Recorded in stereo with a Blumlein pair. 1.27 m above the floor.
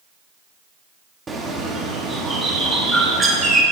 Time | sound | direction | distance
1.3 | a bird | 15° right | 1.1 m